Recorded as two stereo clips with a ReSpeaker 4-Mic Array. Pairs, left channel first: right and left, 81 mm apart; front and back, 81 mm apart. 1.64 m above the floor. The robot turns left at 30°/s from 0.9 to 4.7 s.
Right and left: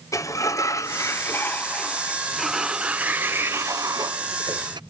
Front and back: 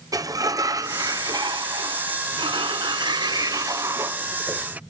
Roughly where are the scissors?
I don't hear scissors.